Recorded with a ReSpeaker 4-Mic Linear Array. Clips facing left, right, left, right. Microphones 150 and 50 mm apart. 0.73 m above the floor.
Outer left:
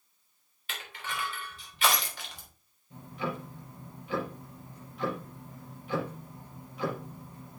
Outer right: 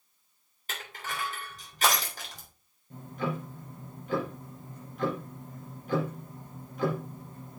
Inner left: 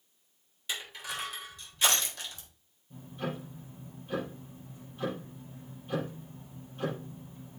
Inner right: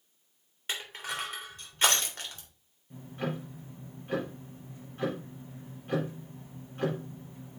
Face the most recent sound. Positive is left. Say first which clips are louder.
# outer right 2 dB, inner right 2 dB
turn(degrees=-45)  # may be behind; listen again after turning